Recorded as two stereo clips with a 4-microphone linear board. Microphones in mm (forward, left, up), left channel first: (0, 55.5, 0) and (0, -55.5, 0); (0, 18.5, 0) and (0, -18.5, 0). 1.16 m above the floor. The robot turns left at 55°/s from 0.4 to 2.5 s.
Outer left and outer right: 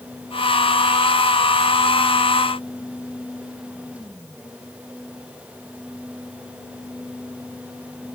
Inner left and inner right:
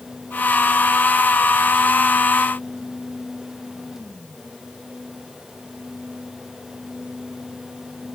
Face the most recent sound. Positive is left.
No sound to turn to.